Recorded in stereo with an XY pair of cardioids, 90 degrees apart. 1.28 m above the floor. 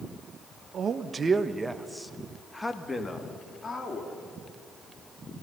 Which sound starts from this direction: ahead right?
A man speaking, at 0.7 s.